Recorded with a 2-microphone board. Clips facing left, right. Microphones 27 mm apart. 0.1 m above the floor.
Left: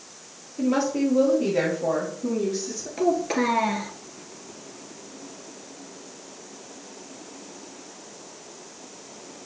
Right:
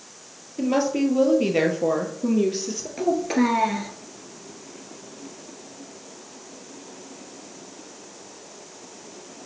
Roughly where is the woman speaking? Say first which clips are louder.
Right 1 dB; right.